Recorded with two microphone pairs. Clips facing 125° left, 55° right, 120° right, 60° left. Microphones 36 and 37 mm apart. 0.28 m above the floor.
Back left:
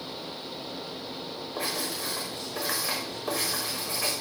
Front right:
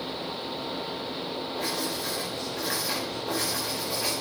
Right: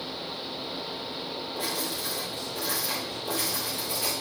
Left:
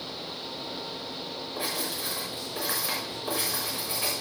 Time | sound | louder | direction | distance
1.6 | writing | back left 1 dB, even | 130° left | 5.5 m